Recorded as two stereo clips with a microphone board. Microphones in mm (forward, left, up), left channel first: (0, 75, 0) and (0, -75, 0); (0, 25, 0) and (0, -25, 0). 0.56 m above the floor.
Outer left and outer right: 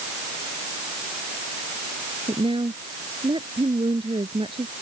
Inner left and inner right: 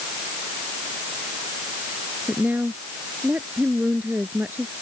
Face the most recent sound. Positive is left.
turn(degrees=-40)  # may be behind; listen again after turning